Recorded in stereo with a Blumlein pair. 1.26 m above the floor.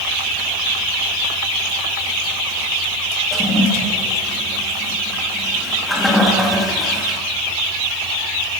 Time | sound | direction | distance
3.3 | a toilet flushing | 5° left | 2 m